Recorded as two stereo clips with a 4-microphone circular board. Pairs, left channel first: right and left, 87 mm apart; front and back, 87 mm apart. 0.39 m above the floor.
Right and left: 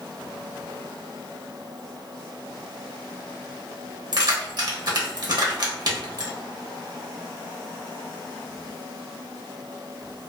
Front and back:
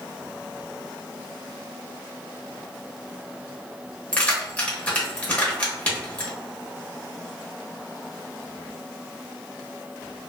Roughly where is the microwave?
I don't hear a microwave.